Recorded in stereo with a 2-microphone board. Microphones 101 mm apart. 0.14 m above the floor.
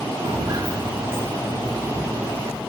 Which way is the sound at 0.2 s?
60° right (ahead or behind).